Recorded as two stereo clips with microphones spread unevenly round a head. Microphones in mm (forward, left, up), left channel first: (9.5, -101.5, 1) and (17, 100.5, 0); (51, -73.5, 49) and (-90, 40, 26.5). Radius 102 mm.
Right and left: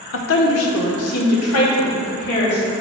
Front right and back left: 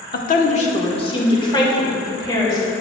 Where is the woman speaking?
80° right, 0.9 m; by 2.7 s 110° right, 3 m.